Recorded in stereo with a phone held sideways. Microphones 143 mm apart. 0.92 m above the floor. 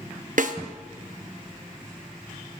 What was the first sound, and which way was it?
A snare drum, 65° right (ahead or behind).